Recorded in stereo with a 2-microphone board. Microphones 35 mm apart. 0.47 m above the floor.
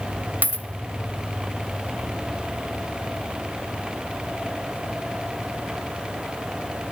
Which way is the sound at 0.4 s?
50° right (ahead or behind).